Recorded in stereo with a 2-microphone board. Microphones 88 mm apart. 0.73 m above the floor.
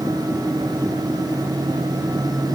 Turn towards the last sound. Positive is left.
No sound to turn to.